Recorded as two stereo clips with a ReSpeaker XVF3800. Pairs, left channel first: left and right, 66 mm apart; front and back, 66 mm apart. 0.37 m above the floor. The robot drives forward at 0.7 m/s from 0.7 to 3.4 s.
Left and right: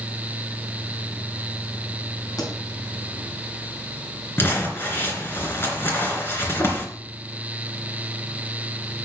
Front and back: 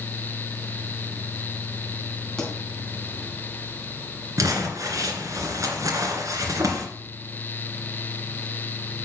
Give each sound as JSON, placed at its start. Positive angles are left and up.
{"t": 2.4, "sound": "a pop", "azimuth_deg": 80, "distance_m": 4.0}
{"t": 4.4, "sound": "crumpling", "azimuth_deg": 145, "distance_m": 2.5}